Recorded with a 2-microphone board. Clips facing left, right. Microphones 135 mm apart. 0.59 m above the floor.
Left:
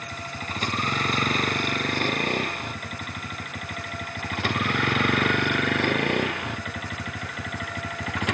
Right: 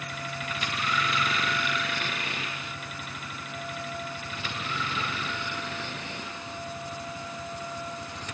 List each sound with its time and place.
0.0 s a vehicle: 45° left (ahead or behind); by 8.3 s 85° left